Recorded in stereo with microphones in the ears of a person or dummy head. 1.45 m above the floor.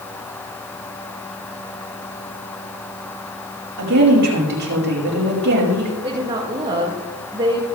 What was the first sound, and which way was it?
A woman speaking, 80° right.